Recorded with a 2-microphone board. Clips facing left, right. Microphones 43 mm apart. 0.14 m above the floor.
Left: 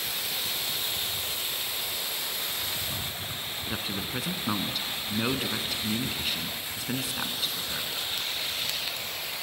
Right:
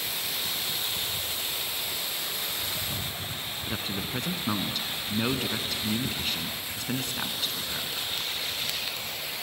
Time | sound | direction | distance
3.7 | a man speaking | 5° left (ahead or behind) | 1.2 m